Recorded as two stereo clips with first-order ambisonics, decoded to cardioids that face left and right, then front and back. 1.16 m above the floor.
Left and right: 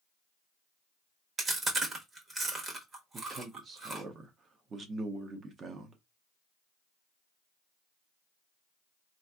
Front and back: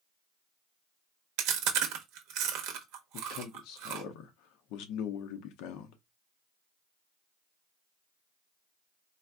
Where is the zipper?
No zipper in this recording.